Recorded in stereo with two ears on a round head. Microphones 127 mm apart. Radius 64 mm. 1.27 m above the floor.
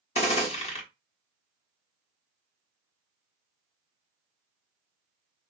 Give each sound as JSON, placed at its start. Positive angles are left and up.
{"t": 0.1, "sound": "a gunshot", "side_deg": 45, "distance_m": 1.1}